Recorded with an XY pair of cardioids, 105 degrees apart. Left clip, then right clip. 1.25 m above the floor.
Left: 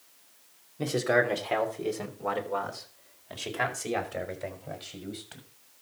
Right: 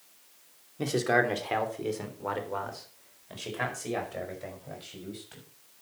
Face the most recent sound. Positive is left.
turn(degrees=30)